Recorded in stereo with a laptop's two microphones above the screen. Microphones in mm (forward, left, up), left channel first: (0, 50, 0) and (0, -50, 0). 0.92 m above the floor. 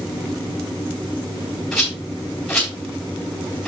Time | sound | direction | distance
1.7 | a rattle | centre (ahead or behind) | 3.5 m